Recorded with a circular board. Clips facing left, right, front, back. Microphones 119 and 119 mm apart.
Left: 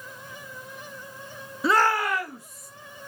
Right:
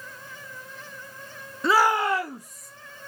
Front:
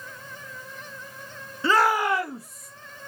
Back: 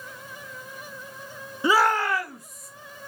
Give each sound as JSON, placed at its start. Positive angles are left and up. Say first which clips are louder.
{"t": 1.6, "sound": "a shout", "louder": "right 1 dB, even", "azimuth_deg": 165, "distance_m": 0.6}